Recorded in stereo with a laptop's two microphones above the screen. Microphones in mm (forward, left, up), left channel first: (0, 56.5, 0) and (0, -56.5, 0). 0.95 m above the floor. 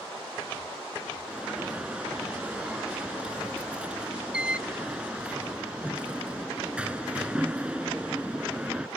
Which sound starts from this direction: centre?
An alarm, at 1.3 s.